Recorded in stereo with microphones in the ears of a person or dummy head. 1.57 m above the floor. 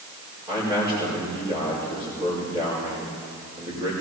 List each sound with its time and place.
0.5 s a man speaking: 30° right (ahead or behind), 5.5 m